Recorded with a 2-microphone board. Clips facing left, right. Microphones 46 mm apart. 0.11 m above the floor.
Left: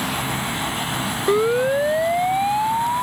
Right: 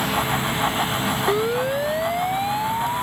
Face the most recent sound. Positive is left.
turn(degrees=10)  # may be behind; listen again after turning